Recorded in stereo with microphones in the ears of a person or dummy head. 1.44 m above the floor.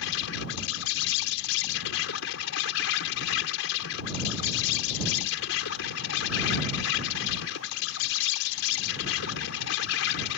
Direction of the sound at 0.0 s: 85° left.